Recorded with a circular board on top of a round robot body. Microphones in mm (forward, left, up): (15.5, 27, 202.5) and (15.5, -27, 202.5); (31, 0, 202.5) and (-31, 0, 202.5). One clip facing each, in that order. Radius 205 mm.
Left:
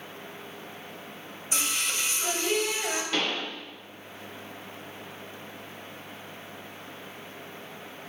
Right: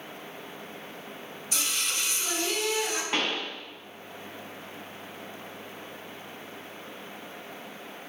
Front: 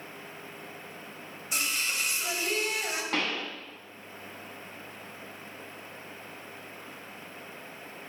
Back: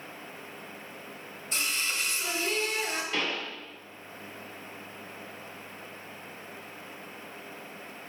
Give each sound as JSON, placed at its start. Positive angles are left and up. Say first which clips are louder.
{"t": 1.5, "sound": "singing", "louder": "left 2 dB, even", "azimuth_deg": 70, "distance_m": 1.4}
{"t": 3.1, "sound": "a pop", "louder": "right 1 dB, front 3 dB", "azimuth_deg": -30, "distance_m": 0.8}